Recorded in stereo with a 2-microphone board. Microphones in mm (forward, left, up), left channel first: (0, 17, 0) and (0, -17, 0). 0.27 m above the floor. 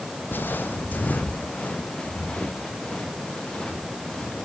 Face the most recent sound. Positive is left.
turn(degrees=20)  # may be behind; listen again after turning